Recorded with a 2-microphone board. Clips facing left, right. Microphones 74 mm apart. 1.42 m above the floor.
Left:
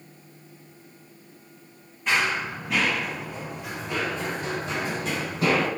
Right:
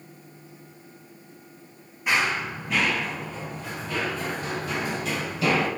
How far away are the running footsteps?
About 2 m.